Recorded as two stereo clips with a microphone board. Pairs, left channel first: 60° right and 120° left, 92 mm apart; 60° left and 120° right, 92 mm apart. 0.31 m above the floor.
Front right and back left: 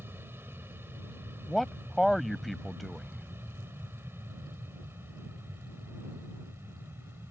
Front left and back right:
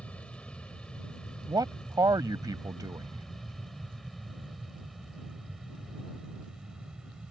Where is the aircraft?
115° left; by 7.3 s 165° left.